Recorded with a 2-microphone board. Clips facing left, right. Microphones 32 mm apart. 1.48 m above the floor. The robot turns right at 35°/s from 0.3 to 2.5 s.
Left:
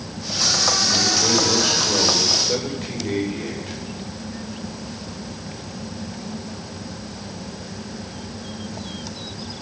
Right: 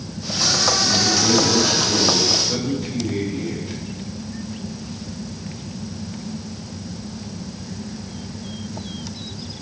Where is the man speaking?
15° left, 5 m; by 3.8 s 70° left, 5 m.